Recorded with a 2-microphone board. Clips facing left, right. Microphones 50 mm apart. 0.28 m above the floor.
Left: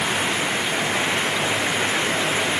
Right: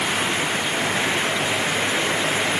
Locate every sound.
Only background noise.